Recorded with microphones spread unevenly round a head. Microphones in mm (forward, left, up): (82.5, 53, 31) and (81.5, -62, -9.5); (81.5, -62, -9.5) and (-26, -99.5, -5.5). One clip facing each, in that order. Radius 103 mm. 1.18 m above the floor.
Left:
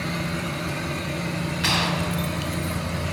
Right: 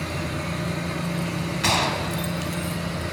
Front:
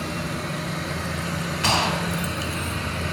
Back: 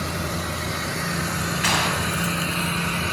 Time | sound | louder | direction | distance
1.6 | a gunshot | right 2 dB, front 2 dB | 40° right | 2.5 m